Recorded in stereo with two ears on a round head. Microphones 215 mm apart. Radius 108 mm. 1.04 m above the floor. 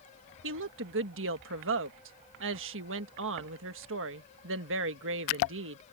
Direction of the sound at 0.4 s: 60° right (ahead or behind).